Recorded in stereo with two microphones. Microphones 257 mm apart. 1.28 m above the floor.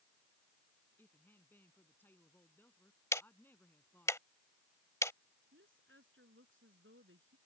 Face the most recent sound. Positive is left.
turn(degrees=-50)  # may be behind; listen again after turning